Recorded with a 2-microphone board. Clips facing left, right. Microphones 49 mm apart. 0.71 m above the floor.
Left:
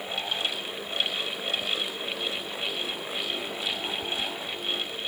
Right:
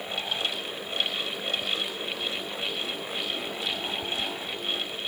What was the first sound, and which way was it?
Only background noise.